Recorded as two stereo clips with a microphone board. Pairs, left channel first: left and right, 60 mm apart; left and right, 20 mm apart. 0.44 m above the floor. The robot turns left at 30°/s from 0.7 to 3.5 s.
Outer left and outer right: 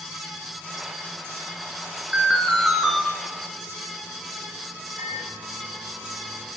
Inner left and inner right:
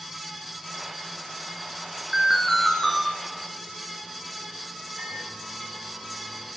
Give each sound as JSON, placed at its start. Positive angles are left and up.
{"t": 2.1, "sound": "an alarm", "side_deg": -20, "distance_m": 5.0}
{"t": 5.0, "sound": "a microwave", "side_deg": -70, "distance_m": 3.0}